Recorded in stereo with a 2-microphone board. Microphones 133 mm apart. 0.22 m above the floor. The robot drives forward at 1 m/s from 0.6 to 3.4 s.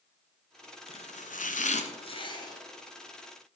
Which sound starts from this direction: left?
Chopping, at 0.9 s.